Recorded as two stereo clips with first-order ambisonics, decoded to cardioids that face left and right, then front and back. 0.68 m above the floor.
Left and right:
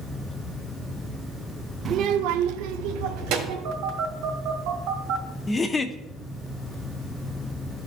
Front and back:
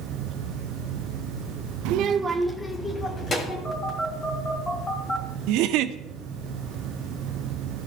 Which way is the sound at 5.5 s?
160° left.